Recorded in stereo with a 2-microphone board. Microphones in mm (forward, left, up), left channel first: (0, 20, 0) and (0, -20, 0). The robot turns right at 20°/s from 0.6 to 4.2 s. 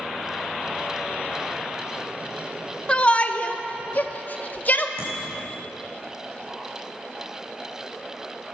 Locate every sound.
2.9 s a shout: 30° left (ahead or behind), 1.0 m; by 4.9 s 45° left (ahead or behind), 1.0 m
5.0 s a bicycle bell: 75° right (ahead or behind), 5.5 m